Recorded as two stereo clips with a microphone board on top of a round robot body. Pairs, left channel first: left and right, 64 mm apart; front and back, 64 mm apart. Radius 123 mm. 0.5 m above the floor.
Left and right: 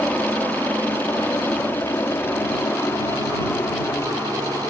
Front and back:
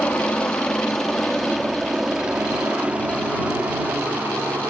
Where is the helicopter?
55° left; by 4.7 s 130° left.